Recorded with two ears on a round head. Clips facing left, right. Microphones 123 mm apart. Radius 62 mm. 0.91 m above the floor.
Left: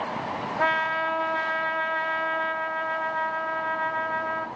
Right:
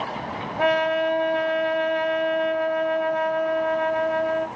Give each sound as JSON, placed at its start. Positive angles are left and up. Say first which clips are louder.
{"t": 0.6, "sound": "a trumpet", "louder": "right 7 dB", "side_deg": -20, "distance_m": 1.8}